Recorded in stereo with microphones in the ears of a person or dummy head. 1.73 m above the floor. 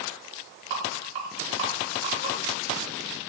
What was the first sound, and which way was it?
A rattle, 45° right (ahead or behind).